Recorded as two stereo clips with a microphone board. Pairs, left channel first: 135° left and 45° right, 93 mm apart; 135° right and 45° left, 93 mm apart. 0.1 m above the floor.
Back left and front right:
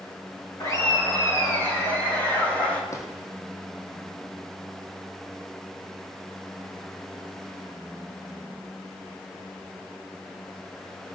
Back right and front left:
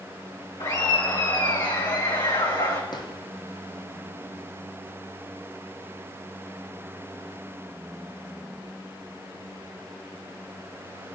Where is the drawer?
170° right, 2.5 m.